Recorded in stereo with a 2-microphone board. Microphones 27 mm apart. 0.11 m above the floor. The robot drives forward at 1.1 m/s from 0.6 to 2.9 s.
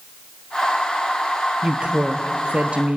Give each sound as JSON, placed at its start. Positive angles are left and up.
{"t": 1.6, "sound": "a woman speaking", "side_deg": -40, "distance_m": 2.0}